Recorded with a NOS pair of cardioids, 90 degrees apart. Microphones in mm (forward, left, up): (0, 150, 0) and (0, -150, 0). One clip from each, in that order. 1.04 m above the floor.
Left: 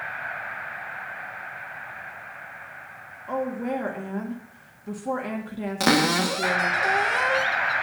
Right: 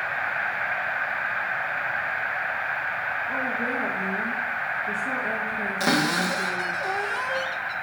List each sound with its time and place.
3.3 s a woman speaking: 35° left, 1.8 m
5.8 s a cupboard door: 30° left, 0.8 m